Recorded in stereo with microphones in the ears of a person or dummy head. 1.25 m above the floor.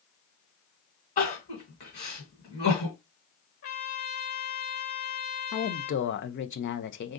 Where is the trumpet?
45° left (ahead or behind), 0.6 m.